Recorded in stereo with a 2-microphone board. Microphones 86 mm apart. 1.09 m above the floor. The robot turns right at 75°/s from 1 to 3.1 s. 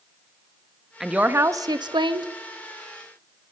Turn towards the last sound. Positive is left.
turn(degrees=-20)